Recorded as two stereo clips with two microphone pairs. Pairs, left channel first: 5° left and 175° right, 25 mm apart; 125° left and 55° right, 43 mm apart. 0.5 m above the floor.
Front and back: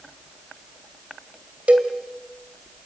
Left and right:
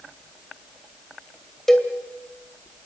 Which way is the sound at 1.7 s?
155° right.